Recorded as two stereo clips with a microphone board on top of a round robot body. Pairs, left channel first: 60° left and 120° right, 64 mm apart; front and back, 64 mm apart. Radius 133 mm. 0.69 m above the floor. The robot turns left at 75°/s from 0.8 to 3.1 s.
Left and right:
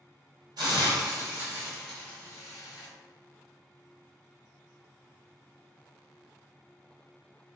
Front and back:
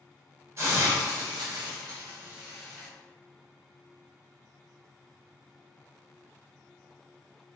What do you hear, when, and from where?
0.6 s a hiss: 130° right, 1.5 m; by 2.9 s 75° left, 1.5 m